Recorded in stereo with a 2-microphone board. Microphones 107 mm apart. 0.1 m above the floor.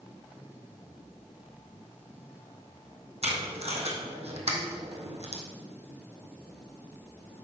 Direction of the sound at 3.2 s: 75° right (ahead or behind).